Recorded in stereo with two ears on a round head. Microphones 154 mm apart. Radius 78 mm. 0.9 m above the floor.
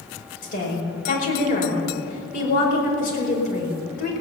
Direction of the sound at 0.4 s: 50° left (ahead or behind).